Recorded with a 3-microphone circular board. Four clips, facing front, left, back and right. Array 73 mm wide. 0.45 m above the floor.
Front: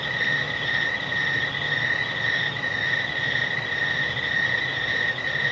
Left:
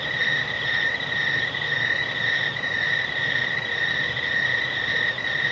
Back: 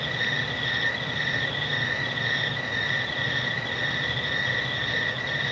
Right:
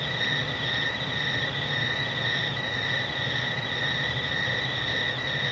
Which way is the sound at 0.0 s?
70° left.